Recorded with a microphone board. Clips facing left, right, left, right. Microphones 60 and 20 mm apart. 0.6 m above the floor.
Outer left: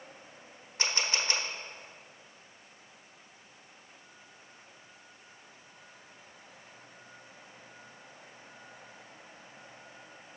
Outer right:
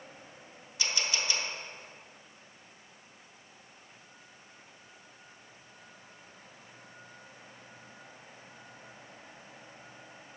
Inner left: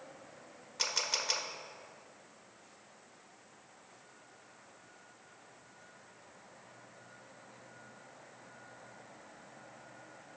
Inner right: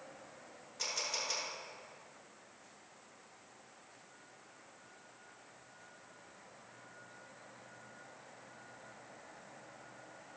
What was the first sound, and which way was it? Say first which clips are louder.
A camera shutter: outer left 1 dB, inner left 4 dB; 40° left (ahead or behind).